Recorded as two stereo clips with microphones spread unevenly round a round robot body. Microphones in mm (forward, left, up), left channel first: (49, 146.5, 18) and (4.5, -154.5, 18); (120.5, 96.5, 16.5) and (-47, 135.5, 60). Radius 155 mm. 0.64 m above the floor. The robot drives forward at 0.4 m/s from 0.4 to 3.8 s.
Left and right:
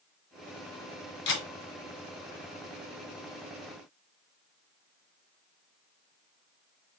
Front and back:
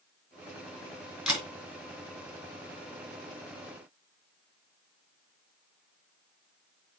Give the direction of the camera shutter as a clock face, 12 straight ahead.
9 o'clock.